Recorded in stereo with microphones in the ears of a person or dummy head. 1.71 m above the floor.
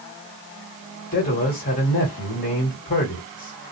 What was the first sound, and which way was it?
A man speaking, 45° left (ahead or behind).